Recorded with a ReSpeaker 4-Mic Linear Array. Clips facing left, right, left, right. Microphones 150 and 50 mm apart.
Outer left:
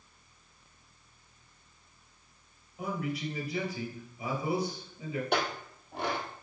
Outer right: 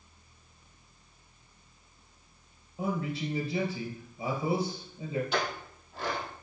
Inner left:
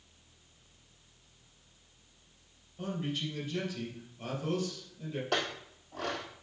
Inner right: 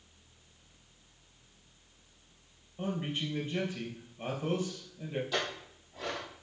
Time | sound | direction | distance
2.8 | a man speaking | 30° right (ahead or behind) | 3 m
5.3 | a clink | 60° left (ahead or behind) | 2 m